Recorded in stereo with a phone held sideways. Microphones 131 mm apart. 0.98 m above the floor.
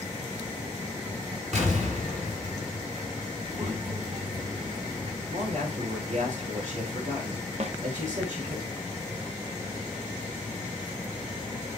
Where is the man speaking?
70° right (ahead or behind), 3.5 m.